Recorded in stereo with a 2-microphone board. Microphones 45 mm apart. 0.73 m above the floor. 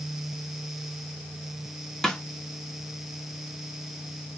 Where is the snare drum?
10° left (ahead or behind), 1.1 m.